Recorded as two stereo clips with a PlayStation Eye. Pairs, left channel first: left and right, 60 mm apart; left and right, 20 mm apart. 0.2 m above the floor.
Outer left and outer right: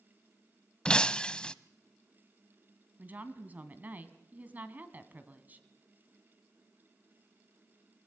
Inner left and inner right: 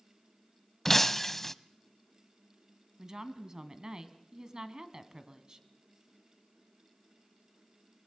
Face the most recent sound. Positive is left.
turn(degrees=-30)  # may be behind; listen again after turning